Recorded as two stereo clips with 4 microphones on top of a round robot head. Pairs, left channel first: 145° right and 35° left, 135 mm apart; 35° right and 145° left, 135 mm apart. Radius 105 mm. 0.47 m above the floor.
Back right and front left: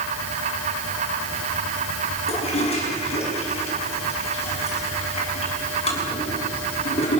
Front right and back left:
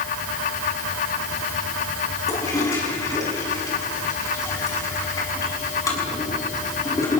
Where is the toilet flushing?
100° right, 6.5 m.